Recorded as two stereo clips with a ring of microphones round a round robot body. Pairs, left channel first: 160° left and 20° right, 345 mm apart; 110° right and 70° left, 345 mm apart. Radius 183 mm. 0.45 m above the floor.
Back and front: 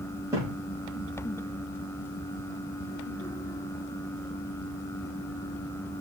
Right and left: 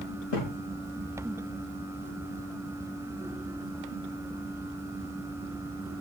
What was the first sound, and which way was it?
A thud, 105° right.